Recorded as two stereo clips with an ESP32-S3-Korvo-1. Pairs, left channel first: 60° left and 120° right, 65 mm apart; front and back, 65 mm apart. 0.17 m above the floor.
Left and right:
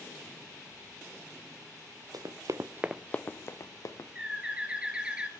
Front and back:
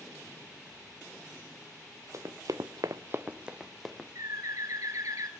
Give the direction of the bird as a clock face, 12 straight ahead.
6 o'clock.